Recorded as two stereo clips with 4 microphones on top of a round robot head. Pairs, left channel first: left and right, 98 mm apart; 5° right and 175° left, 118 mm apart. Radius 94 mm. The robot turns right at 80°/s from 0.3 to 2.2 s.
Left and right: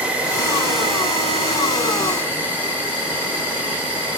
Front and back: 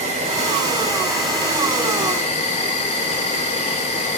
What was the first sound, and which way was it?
An insect, 165° right.